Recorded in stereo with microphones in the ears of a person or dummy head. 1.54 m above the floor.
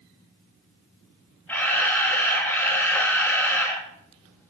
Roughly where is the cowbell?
I don't hear a cowbell.